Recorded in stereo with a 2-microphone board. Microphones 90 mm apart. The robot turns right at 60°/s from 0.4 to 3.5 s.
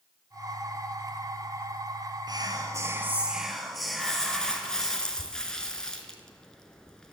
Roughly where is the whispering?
Right.